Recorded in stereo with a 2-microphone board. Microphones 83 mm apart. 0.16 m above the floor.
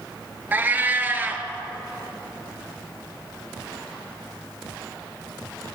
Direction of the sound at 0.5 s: 25° right (ahead or behind).